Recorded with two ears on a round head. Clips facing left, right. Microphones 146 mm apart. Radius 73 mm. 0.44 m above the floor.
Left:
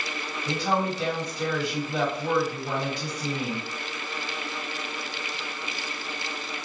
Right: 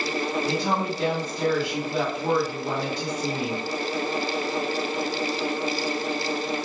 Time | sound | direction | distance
0.5 | a woman speaking | 40° right (ahead or behind) | 1.6 m